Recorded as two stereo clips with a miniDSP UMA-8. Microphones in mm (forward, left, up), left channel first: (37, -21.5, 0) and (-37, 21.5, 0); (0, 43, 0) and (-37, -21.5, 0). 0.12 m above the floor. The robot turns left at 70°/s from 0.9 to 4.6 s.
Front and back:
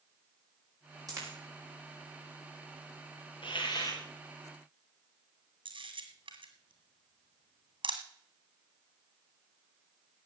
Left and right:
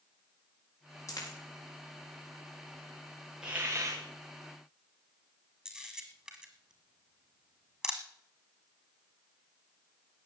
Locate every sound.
1.1 s a dropped coin: 105° left, 6 m; by 1.4 s 85° left, 6 m
3.4 s a hiss: 40° right, 3 m; by 4.0 s 85° right, 3 m
5.7 s a camera shutter: 160° left, 1.7 m